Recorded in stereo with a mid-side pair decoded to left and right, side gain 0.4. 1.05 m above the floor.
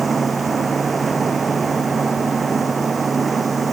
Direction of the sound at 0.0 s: 35° right.